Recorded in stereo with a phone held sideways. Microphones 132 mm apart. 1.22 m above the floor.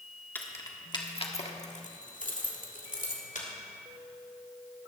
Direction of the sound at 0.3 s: 15° left (ahead or behind).